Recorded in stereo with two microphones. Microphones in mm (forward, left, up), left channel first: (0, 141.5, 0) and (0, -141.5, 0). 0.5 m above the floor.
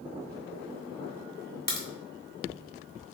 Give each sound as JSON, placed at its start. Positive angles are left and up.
{"t": 1.7, "sound": "a crack", "side_deg": 35, "distance_m": 0.7}